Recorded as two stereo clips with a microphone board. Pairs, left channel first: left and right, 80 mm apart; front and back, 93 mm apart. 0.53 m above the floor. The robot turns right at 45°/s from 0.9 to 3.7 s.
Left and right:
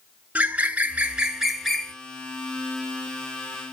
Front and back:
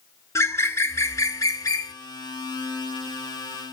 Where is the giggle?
No giggle in this recording.